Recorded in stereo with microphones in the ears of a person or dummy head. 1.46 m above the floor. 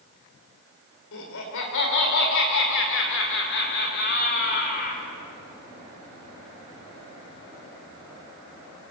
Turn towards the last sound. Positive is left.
turn(degrees=50)  # may be behind; listen again after turning